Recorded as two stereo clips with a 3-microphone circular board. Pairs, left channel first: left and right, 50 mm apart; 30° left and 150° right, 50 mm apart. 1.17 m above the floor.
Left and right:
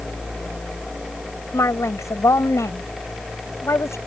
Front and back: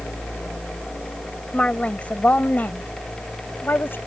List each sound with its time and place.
1.5 s a woman speaking: 100° left; by 4.0 s 75° left